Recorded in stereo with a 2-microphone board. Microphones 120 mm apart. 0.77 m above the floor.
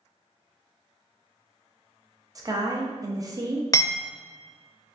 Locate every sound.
2.4 s a woman speaking: 30° right (ahead or behind), 0.6 m
3.7 s hammering: 30° left (ahead or behind), 0.5 m